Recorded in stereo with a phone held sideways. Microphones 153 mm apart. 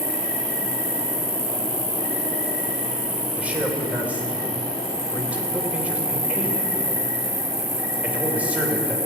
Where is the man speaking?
10° right (ahead or behind), 2.5 m.